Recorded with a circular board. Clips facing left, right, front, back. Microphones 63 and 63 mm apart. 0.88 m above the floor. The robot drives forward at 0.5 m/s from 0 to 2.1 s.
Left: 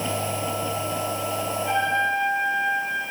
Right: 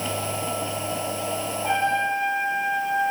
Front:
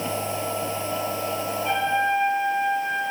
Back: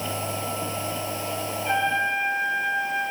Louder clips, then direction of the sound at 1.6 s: Right 1 dB, front 1 dB; 90° right.